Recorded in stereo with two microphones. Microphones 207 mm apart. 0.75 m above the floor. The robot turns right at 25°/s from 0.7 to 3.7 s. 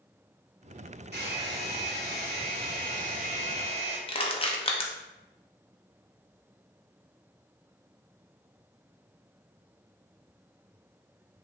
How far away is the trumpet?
No trumpet in this recording.